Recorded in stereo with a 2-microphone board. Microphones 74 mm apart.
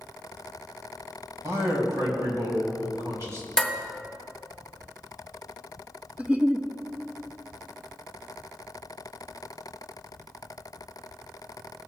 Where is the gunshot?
I don't hear a gunshot.